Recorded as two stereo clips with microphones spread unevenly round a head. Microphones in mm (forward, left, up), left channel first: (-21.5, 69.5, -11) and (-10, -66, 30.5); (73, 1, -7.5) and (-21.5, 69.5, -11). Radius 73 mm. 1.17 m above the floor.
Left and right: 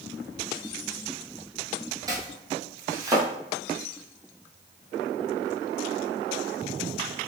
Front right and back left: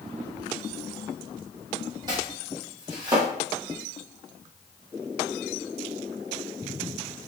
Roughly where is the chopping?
Behind right.